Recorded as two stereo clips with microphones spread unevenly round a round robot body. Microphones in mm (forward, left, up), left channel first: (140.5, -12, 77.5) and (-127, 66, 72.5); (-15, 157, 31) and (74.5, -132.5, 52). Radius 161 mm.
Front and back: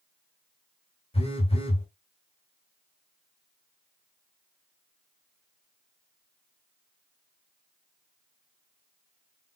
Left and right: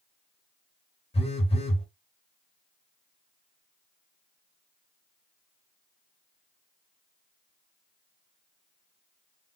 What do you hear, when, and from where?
1.1 s a phone buzzing: 45° left, 1.5 m